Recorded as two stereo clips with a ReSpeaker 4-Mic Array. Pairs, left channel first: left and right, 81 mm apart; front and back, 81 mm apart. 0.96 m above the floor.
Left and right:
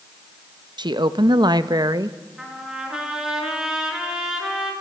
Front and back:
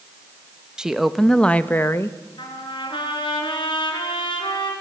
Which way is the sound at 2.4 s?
5° right.